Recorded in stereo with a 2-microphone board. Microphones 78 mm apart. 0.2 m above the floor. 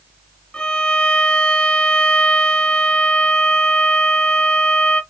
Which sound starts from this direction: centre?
A violin, at 0.5 s.